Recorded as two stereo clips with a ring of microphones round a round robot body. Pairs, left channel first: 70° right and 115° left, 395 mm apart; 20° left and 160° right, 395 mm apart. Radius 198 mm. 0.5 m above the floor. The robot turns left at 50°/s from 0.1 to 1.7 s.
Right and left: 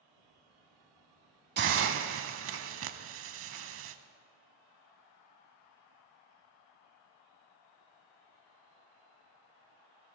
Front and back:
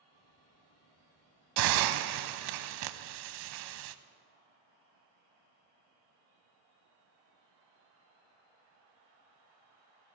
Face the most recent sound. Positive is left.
turn(degrees=170)